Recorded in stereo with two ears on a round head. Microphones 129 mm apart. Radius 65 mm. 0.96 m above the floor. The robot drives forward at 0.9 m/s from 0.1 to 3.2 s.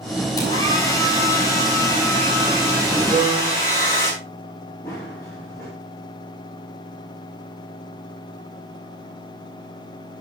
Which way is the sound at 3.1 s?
15° left (ahead or behind).